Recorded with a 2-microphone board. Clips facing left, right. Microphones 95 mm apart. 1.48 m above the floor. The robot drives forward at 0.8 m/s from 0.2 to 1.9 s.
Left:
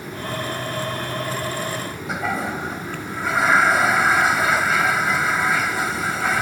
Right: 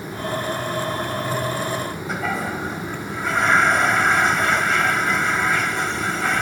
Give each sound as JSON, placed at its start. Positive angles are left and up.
{"t": 2.1, "sound": "a toilet flushing", "side_deg": 5}